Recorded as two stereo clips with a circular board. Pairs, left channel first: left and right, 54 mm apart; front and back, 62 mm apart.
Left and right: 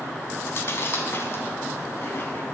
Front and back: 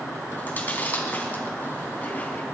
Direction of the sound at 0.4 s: 60° left.